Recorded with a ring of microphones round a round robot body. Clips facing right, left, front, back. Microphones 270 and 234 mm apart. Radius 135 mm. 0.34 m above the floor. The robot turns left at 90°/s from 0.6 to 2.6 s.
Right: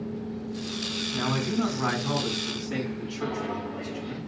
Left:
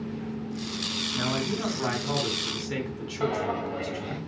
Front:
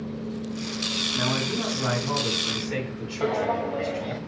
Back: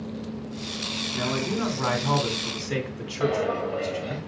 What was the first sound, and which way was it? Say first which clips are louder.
A man speaking: right 2 dB, back 1 dB; 85° right.